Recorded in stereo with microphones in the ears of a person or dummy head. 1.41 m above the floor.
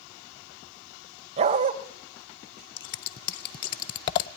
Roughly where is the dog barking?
Right.